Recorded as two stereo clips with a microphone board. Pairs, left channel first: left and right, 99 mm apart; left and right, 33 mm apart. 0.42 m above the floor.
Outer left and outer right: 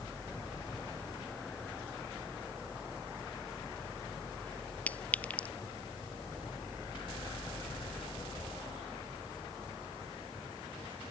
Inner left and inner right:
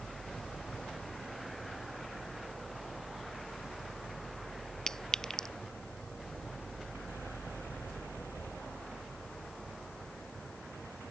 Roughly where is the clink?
Centre.